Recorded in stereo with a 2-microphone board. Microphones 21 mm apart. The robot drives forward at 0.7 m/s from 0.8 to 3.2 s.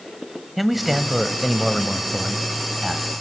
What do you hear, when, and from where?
0.6 s a man speaking: 5° right (ahead or behind), 1.2 m